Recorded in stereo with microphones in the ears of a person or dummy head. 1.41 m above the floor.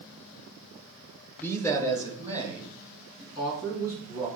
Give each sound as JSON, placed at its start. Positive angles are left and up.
{"t": 1.4, "sound": "a man speaking", "side_deg": 10, "distance_m": 0.6}